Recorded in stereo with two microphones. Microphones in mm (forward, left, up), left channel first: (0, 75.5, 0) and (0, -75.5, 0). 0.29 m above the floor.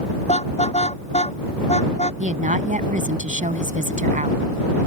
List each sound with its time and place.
0.3 s a car horn: 45° left (ahead or behind)
2.2 s a woman speaking: 55° right (ahead or behind)